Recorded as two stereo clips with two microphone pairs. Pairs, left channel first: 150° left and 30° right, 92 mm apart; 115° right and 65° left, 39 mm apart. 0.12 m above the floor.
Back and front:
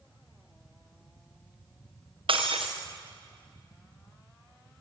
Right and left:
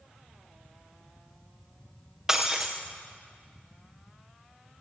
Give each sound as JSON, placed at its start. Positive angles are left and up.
{"t": 2.3, "sound": "breaking glass", "azimuth_deg": -10, "distance_m": 4.0}